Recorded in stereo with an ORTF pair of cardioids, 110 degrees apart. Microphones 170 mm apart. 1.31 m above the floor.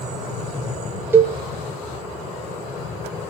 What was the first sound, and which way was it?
A cowbell, 15° right.